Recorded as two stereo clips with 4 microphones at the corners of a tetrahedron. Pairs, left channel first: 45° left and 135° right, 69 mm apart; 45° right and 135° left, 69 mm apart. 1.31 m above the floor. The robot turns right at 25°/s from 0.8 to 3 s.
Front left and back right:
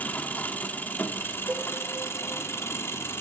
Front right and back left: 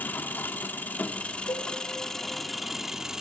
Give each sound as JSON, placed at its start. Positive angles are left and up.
{"t": 0.0, "sound": "an engine running", "azimuth_deg": 0, "distance_m": 0.9}
{"t": 1.5, "sound": "a cowbell", "azimuth_deg": -70, "distance_m": 1.7}